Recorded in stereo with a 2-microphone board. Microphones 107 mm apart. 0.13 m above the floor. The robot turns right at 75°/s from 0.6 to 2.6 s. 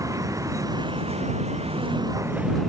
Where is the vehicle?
150° right; by 2.7 s straight ahead.